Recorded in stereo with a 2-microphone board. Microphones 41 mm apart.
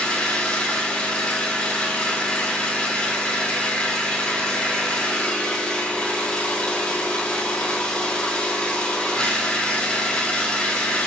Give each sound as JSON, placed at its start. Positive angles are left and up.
{"t": 0.0, "sound": "an engine running", "side_deg": 25, "distance_m": 1.9}